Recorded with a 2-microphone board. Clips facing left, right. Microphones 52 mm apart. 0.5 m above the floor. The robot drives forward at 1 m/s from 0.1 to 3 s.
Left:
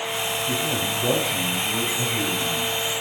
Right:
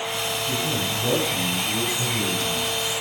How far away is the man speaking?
About 3.5 m.